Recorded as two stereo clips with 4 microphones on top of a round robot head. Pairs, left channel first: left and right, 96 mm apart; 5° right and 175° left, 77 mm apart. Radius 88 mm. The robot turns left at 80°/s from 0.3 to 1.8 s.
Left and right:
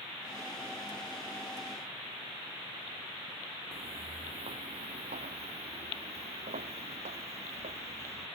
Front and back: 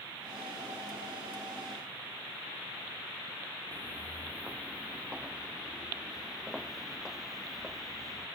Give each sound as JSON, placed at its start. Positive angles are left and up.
{"t": 3.7, "sound": "footsteps", "azimuth_deg": -115}